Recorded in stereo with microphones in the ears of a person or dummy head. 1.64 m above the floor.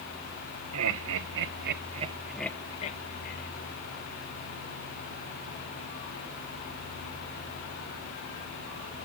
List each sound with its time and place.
0.7 s laughter: 80° right, 1.7 m; by 3.5 s 50° left (ahead or behind), 1.5 m